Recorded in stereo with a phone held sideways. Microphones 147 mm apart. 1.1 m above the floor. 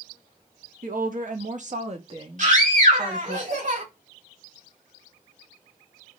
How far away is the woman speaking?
About 1.2 m.